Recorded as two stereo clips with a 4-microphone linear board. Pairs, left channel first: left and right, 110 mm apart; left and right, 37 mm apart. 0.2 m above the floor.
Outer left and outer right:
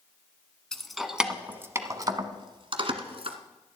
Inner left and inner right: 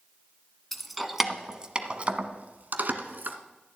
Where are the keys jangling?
5° left (ahead or behind), 1.1 m; by 3.4 s 60° right (ahead or behind), 1.4 m.